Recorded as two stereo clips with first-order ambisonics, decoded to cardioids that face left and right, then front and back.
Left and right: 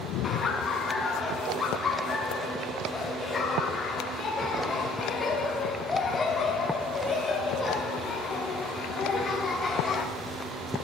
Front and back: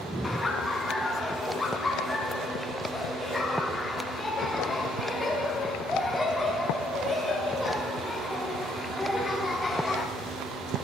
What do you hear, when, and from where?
0.2 s laughter: 60° left, 0.7 m